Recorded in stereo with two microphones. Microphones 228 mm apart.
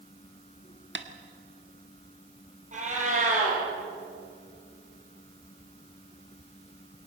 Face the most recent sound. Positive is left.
turn(degrees=-35)  # may be behind; listen again after turning